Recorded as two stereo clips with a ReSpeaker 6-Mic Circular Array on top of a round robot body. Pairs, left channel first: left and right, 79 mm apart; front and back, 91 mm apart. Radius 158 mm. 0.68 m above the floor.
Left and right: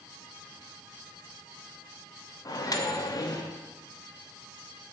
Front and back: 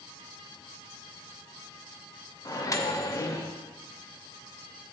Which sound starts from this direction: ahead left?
A microwave, at 2.5 s.